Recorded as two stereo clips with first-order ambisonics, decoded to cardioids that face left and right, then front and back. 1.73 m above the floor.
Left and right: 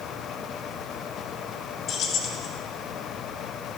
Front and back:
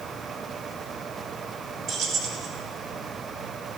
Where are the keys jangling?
135° left, 1.3 m.